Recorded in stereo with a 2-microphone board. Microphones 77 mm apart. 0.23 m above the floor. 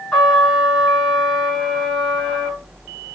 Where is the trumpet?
20° left (ahead or behind), 3 m.